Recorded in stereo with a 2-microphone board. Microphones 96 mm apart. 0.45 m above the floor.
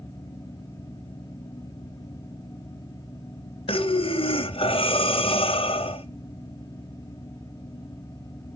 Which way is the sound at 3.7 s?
80° left.